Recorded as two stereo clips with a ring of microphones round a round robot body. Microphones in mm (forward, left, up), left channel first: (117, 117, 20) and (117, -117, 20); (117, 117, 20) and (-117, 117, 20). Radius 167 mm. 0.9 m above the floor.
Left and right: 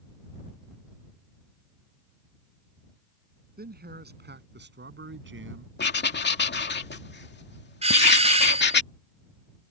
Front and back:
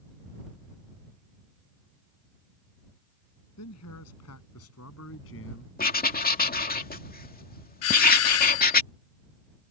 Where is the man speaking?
40° right; by 5.7 s 55° right.